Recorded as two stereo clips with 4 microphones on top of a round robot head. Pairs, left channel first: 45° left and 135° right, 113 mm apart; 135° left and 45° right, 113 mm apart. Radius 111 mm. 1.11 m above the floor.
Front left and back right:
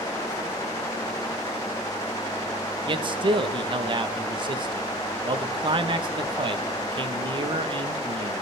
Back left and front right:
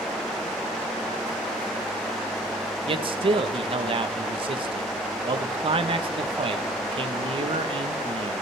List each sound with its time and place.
2.9 s a man speaking: 90° right, 1.0 m